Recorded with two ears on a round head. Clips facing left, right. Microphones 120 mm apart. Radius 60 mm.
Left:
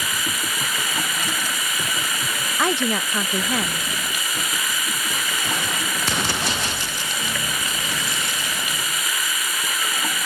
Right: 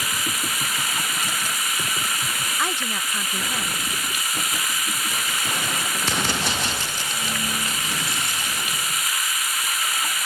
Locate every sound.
0.0 s running water: 70° left (ahead or behind)
2.6 s a woman speaking: 50° left (ahead or behind)